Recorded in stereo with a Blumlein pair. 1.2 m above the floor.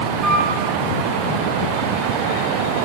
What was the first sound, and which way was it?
A flute, 20° right.